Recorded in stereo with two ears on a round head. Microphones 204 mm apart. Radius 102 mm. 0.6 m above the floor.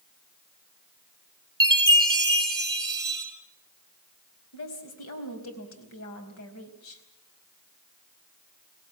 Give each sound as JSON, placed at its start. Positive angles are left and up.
{"t": 1.6, "sound": "a chime", "side_deg": -20, "distance_m": 4.5}
{"t": 4.5, "sound": "a woman speaking", "side_deg": 70, "distance_m": 4.5}